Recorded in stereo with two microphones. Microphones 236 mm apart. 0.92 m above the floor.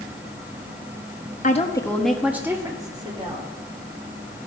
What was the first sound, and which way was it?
A woman speaking, 35° left (ahead or behind).